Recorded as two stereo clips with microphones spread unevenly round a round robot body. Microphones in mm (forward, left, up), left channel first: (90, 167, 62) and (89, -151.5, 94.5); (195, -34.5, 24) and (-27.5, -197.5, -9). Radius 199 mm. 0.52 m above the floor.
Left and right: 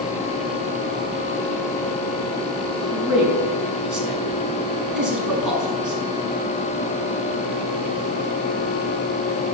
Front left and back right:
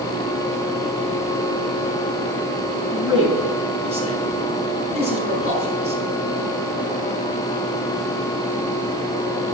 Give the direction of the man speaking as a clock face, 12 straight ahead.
12 o'clock.